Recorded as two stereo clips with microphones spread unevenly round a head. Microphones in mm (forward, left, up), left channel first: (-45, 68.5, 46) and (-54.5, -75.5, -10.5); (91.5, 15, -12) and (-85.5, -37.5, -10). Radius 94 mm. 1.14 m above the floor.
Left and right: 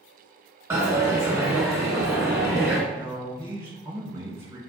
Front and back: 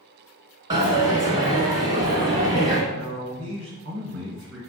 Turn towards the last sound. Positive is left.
turn(degrees=-145)